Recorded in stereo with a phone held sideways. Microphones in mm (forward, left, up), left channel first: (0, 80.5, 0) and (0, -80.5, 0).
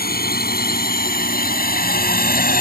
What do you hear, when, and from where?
0.0 s a drone: 70° left (ahead or behind); by 2.6 s 65° left (ahead or behind)